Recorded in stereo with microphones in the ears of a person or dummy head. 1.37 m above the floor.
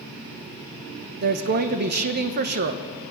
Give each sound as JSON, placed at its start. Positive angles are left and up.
{"t": 1.2, "sound": "a woman speaking", "side_deg": -50, "distance_m": 1.0}